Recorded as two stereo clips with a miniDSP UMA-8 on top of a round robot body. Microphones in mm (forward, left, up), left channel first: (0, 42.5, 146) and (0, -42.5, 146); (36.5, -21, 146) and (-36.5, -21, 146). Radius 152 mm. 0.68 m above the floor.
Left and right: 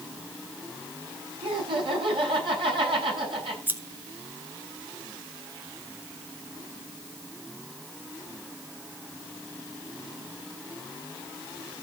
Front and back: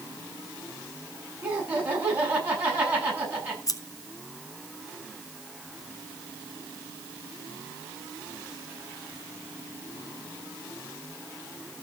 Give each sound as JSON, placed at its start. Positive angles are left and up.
{"t": 1.4, "sound": "laughter", "azimuth_deg": -115, "distance_m": 9.0}
{"t": 3.7, "sound": "scissors", "azimuth_deg": -25, "distance_m": 1.8}